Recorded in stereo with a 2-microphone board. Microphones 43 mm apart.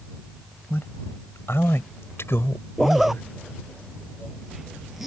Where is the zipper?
5° right (ahead or behind).